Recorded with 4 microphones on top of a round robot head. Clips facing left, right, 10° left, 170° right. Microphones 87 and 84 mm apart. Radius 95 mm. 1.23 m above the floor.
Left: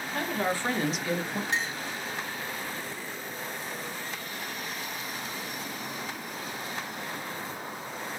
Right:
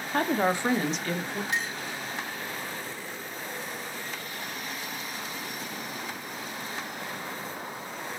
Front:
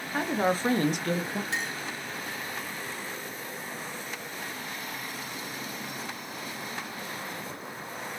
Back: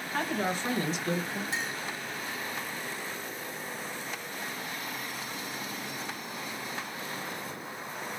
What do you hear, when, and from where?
0.1 s a woman speaking: 75° right, 0.7 m; by 1.4 s 20° left, 1.2 m
1.5 s a clink: 35° left, 1.3 m